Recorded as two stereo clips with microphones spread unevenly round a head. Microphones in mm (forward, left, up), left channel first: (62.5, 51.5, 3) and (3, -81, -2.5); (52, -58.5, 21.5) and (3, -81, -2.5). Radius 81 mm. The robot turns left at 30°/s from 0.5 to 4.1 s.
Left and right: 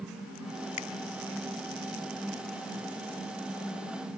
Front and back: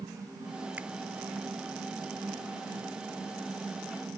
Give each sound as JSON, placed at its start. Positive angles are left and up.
{"t": 0.8, "sound": "a finger snap", "azimuth_deg": 120}